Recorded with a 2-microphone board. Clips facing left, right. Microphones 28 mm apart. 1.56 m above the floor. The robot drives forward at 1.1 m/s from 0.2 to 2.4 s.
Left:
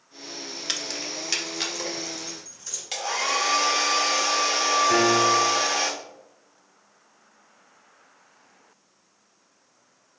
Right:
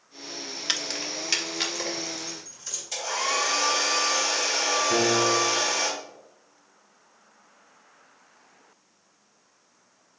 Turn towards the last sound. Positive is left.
turn(degrees=45)  # may be behind; listen again after turning